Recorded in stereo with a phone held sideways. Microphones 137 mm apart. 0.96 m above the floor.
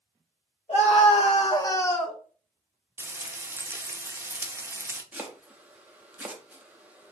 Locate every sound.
0.7 s a scream: 55° left (ahead or behind), 1.1 m; by 2.2 s centre (ahead or behind), 0.6 m
3.0 s frying: 15° right (ahead or behind), 0.5 m
5.1 s chopping: 10° right (ahead or behind), 0.6 m